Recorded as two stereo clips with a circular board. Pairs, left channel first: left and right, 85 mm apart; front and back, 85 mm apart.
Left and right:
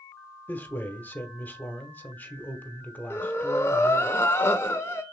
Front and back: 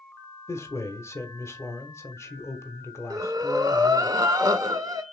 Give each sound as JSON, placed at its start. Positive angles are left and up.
{"t": 0.5, "sound": "a man speaking", "azimuth_deg": 35, "distance_m": 1.0}
{"t": 3.1, "sound": "breathing", "azimuth_deg": 145, "distance_m": 0.7}